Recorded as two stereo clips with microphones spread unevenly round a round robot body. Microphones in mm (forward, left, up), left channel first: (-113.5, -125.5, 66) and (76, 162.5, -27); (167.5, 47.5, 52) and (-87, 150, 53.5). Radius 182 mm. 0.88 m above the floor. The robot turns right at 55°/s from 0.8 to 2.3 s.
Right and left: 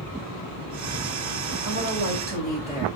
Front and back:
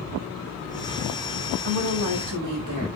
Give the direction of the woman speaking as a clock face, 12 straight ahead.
8 o'clock.